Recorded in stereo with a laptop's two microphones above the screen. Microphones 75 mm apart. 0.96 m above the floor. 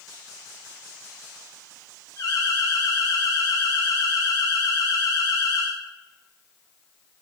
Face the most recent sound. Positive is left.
turn(degrees=50)  # may be behind; listen again after turning